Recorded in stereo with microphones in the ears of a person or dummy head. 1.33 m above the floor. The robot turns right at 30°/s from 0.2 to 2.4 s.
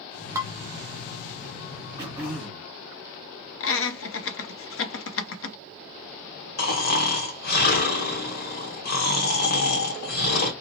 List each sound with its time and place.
0.3 s dishes clattering: 15° right (ahead or behind), 0.6 m; by 0.5 s 10° right (ahead or behind), 0.6 m
2.0 s throat clearing: 15° right (ahead or behind), 0.9 m; by 2.7 s centre (ahead or behind), 0.9 m
3.6 s laughter: 65° left (ahead or behind), 0.7 m
6.6 s snoring: 45° left (ahead or behind), 0.8 m